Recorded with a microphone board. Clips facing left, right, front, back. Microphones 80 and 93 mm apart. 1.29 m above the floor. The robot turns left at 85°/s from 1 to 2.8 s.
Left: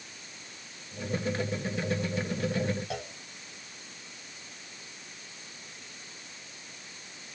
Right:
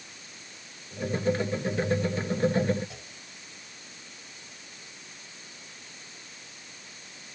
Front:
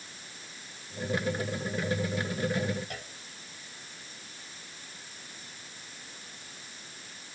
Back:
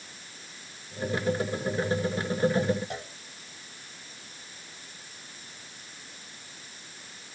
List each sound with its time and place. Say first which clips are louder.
2.9 s a clunk: left 10 dB, back 5 dB; 115° left